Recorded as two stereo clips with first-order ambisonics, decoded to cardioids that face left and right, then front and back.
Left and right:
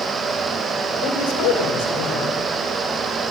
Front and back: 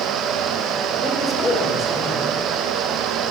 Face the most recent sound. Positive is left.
turn(degrees=80)